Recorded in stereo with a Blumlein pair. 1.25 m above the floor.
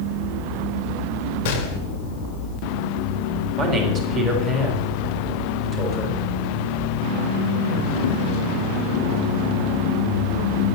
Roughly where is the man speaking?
Ahead right.